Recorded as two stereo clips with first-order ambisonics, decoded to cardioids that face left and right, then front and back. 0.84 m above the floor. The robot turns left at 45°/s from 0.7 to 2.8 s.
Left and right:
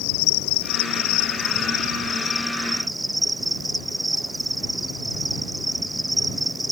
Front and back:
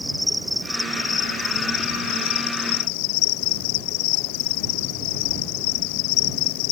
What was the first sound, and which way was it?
An insect, 90° left.